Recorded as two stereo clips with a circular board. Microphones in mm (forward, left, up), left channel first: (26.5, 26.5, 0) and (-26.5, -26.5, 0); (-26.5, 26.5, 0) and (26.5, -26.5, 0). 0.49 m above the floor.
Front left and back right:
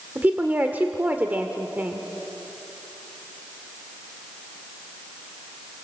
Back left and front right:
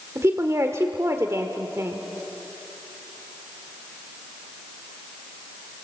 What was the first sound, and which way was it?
A woman speaking, 75° right.